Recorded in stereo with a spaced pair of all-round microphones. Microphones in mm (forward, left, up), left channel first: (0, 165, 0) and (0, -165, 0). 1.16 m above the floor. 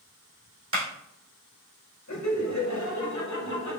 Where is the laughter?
55° left (ahead or behind), 0.7 m.